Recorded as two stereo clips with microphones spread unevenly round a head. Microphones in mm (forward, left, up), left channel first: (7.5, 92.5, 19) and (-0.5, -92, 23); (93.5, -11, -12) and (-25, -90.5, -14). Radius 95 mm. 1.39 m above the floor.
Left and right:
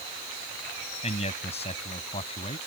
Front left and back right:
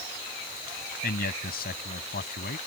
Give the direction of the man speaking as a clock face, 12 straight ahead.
11 o'clock.